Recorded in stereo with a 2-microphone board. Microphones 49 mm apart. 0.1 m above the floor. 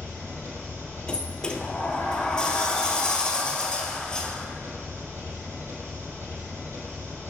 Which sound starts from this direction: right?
An engine running, at 0.0 s.